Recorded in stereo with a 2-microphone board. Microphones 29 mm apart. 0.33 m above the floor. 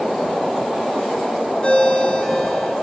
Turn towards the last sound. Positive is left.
turn(degrees=30)  # may be behind; listen again after turning